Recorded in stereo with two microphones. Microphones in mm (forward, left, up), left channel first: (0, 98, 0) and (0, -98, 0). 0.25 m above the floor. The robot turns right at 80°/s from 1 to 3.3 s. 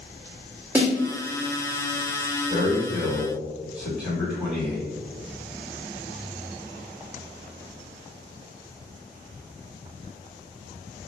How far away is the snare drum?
About 1.5 m.